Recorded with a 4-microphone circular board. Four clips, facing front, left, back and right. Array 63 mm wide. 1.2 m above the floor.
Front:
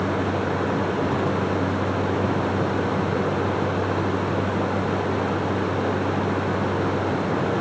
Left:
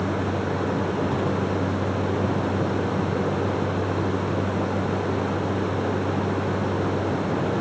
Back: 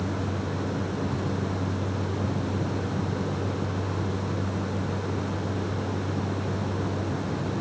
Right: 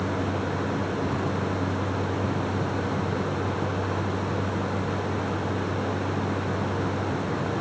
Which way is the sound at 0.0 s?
50° left.